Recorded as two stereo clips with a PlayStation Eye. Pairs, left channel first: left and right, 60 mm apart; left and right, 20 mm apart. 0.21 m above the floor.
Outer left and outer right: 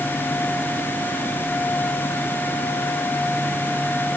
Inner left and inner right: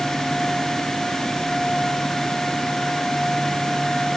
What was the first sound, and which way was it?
Only background noise.